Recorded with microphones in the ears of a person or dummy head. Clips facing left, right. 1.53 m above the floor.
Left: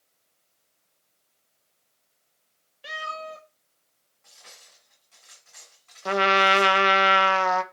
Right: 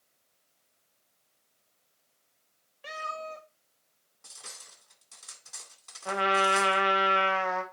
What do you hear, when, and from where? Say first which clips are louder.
2.8 s a cat meowing: left 2 dB; 10° left (ahead or behind), 1.4 m
4.2 s cutlery clinking: right 1 dB; 65° right (ahead or behind), 2 m
6.0 s a trumpet: left 5 dB; 75° left (ahead or behind), 0.7 m